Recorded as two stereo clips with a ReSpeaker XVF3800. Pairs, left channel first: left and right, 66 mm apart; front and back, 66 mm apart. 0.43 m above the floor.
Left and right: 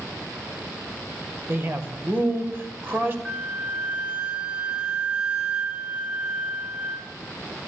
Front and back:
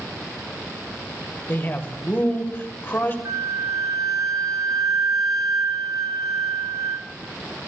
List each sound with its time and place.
1.5 s a man speaking: 45° right, 1.8 m
3.2 s a flute: 165° right, 0.7 m